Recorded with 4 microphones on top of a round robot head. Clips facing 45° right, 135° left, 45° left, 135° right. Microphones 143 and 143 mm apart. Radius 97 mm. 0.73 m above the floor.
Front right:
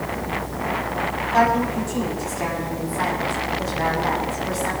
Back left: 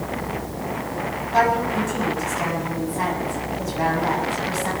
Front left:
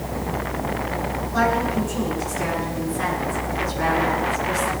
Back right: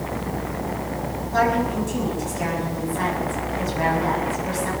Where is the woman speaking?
150° right, 7 m.